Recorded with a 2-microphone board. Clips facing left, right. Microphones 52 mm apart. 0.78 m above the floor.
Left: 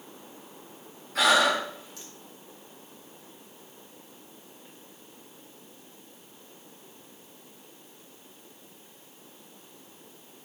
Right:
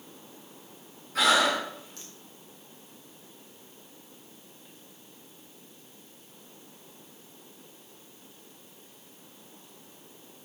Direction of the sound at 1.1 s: Centre (ahead or behind).